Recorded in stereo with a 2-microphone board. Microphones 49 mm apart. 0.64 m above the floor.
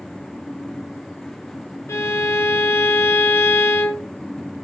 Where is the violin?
65° left (ahead or behind), 0.8 m.